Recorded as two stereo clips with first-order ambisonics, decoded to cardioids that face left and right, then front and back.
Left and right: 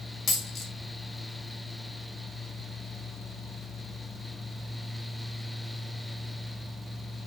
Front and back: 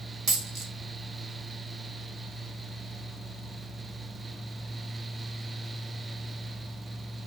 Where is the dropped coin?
140° left, 1.6 m.